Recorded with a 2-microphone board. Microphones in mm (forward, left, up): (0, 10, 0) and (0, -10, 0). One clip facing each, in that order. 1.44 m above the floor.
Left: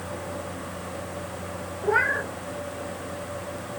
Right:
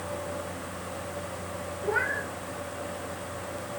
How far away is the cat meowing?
About 0.7 m.